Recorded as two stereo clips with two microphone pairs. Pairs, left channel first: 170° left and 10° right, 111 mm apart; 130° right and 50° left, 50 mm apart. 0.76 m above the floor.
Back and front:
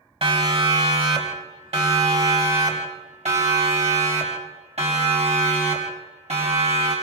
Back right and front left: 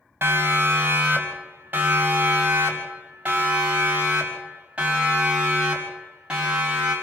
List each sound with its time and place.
0.2 s a siren: 10° left, 4.5 m; by 6.9 s 20° right, 8.5 m